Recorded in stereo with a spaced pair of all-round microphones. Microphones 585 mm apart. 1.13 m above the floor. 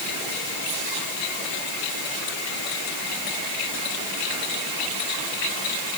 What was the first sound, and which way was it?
Only background noise.